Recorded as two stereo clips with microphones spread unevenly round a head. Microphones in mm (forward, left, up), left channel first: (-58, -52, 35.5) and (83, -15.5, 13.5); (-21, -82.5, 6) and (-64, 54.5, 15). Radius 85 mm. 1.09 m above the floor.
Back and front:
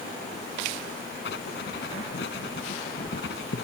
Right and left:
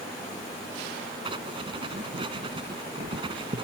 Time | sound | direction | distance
1.2 | writing | 165° left | ?